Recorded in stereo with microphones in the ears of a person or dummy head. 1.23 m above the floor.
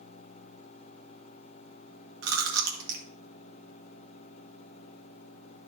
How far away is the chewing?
About 1.4 m.